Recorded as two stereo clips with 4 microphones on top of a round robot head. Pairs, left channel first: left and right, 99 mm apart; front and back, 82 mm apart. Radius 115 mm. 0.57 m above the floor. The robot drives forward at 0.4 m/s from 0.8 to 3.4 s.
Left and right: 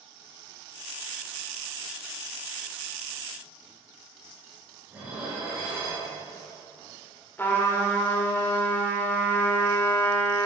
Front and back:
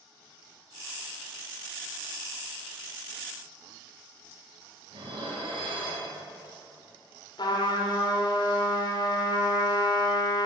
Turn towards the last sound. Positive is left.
turn(degrees=20)